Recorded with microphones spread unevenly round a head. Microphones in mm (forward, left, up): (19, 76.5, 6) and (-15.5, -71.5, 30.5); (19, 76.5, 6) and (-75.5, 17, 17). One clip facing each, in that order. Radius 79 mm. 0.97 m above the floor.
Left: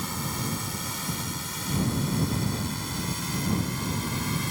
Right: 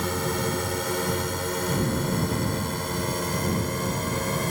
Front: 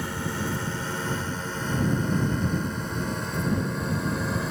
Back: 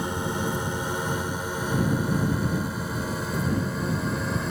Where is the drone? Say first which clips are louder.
Right 7 dB, back 3 dB; 70° right; by 4.5 s 55° right.